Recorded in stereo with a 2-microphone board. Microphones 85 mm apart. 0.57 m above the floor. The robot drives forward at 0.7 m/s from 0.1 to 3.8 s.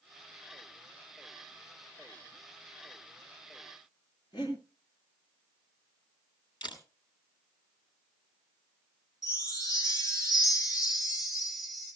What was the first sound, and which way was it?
Breathing, 60° left (ahead or behind).